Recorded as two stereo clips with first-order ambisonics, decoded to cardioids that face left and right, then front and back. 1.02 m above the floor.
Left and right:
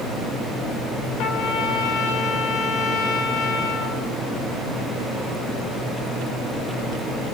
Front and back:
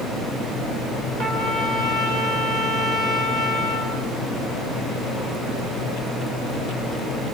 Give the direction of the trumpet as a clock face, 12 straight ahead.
8 o'clock.